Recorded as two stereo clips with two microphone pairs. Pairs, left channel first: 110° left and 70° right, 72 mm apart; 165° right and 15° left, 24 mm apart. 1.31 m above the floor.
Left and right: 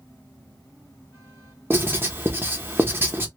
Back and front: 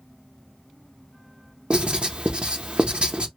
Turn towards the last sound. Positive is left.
turn(degrees=-15)